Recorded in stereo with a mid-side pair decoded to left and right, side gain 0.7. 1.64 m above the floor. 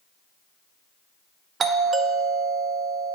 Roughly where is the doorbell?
Ahead right.